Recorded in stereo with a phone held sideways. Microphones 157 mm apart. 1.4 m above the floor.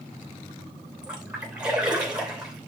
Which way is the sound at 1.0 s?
5° right (ahead or behind).